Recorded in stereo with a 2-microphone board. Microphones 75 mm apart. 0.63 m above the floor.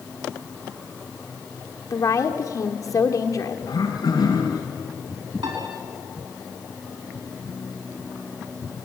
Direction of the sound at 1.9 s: 45° left (ahead or behind).